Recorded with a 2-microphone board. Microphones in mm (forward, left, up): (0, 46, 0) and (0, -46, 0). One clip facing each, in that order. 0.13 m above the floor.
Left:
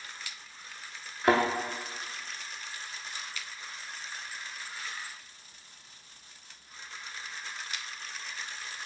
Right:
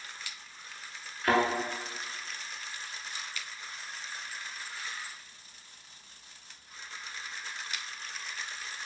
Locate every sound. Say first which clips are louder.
1.2 s a thud: left 2 dB; 25° left (ahead or behind), 0.7 m